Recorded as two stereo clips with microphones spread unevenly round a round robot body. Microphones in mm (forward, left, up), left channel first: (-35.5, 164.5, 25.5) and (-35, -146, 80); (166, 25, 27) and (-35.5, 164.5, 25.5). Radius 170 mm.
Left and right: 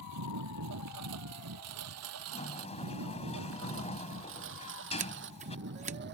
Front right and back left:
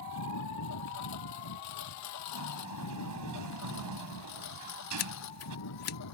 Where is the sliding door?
160° left.